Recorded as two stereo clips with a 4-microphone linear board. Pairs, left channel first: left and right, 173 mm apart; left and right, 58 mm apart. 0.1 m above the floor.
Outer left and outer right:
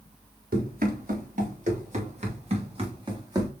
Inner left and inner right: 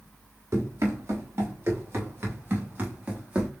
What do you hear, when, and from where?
0.5 s running footsteps: 60° right (ahead or behind), 3 m; by 3.5 s 20° right (ahead or behind), 1.8 m